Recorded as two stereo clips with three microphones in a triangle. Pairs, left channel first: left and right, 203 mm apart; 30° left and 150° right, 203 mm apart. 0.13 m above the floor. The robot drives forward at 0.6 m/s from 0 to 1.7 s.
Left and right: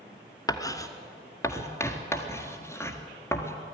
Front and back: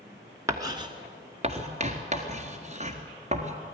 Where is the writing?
150° left, 1.3 m; by 3.5 s 165° left, 1.8 m.